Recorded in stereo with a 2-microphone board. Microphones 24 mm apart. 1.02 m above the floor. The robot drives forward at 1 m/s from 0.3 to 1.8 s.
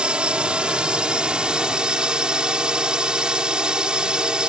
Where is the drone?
50° right (ahead or behind); by 4.5 s 40° right (ahead or behind).